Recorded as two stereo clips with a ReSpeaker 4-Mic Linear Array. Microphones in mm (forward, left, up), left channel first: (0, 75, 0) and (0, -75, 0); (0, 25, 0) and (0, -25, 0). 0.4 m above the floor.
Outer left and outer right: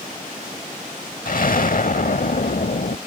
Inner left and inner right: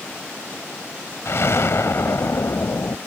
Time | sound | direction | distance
1.2 | an explosion | 65° left (ahead or behind) | ?